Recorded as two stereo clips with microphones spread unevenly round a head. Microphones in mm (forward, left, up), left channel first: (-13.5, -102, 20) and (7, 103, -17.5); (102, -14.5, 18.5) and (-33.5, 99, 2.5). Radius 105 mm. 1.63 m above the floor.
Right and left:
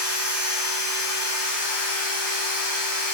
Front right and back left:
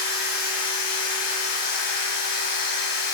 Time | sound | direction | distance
0.0 | a machine running | 90° right | 3 m